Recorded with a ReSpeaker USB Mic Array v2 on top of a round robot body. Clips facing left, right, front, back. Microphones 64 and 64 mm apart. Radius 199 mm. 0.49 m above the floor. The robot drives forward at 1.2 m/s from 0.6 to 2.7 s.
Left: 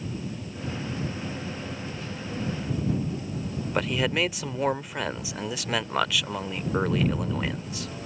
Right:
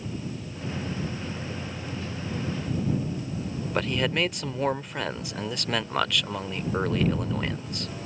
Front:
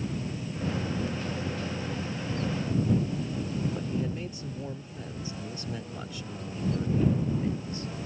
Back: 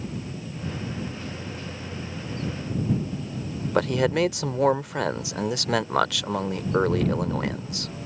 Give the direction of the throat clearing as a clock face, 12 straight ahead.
No throat clearing in this recording.